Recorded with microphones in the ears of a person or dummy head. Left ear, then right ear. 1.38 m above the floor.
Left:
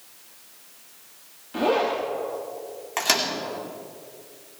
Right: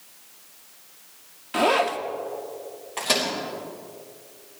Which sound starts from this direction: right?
A zipper, at 1.5 s.